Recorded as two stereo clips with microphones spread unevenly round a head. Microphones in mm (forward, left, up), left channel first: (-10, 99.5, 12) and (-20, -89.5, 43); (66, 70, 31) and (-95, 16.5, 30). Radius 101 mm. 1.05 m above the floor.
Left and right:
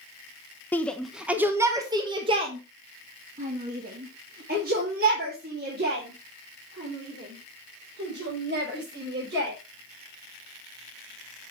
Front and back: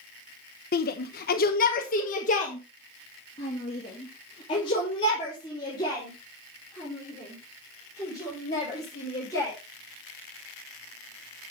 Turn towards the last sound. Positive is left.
turn(degrees=-55)